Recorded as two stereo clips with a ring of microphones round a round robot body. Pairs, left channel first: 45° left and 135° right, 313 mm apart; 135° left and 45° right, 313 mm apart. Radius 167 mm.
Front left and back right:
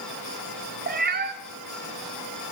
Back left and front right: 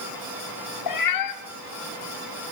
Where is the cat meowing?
160° left, 2 m.